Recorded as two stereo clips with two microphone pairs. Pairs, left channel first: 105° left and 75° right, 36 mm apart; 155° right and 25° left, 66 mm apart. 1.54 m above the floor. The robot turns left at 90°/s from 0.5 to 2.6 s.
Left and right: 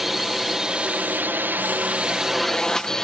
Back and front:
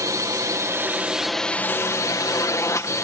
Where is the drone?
10° left; by 3.0 s straight behind.